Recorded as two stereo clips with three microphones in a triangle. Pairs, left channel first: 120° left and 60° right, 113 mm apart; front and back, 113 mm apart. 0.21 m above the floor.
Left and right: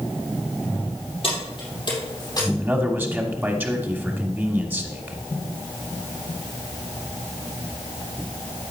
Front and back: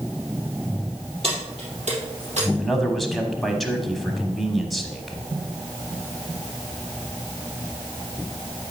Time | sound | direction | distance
1.2 | keys jangling | 155° left | 3.5 m
2.6 | a man speaking | 90° right | 1.0 m